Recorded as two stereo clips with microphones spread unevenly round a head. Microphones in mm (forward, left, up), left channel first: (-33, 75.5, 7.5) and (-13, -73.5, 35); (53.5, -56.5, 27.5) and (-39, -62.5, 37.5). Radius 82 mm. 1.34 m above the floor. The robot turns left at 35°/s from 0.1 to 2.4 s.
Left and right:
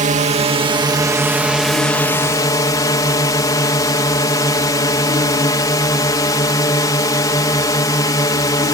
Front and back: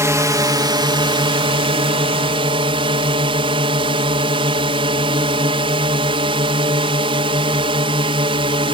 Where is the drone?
120° right; by 8.8 s 160° left.